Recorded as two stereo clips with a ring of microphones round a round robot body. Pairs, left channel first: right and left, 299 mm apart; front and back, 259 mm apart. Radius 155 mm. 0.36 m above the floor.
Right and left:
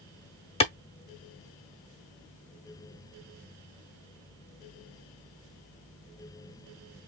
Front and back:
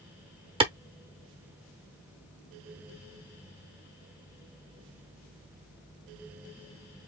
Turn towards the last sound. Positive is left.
turn(degrees=-135)